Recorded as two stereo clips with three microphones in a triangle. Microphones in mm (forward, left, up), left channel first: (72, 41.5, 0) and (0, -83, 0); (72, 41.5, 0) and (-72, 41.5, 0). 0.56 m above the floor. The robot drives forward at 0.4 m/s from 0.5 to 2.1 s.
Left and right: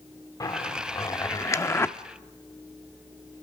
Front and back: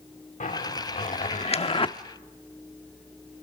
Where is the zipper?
Straight ahead, 1.1 m; by 2.0 s 5° right, 0.7 m.